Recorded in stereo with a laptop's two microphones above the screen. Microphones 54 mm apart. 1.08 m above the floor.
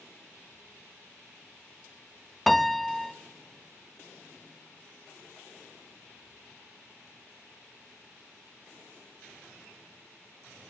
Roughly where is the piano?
Centre.